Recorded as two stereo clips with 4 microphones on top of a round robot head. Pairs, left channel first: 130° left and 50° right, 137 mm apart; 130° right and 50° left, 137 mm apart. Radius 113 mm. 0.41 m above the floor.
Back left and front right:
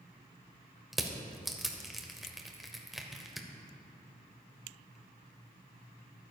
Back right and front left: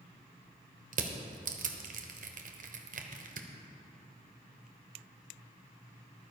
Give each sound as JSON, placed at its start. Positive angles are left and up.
{"t": 0.9, "sound": "crushing", "azimuth_deg": 40, "distance_m": 1.1}